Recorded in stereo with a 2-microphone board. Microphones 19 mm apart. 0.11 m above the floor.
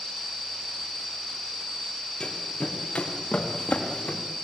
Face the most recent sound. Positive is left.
turn(degrees=75)  # may be behind; listen again after turning